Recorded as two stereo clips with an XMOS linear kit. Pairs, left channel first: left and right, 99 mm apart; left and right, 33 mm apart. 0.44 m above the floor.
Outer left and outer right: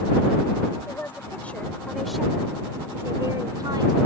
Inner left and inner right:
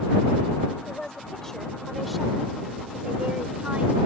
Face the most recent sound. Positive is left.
turn(degrees=-50)  # may be behind; listen again after turning